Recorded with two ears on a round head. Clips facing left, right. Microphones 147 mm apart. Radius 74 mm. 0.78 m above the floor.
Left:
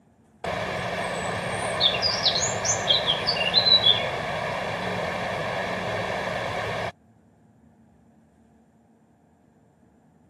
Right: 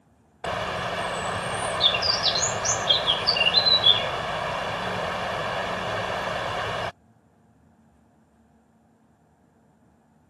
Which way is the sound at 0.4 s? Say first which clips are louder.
Even; 10° left (ahead or behind).